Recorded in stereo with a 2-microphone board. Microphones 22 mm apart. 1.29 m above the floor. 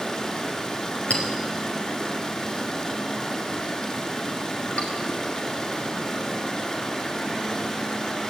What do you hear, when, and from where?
0.0 s running water: 35° left (ahead or behind), 5.5 m
1.1 s a clink: 80° left, 5 m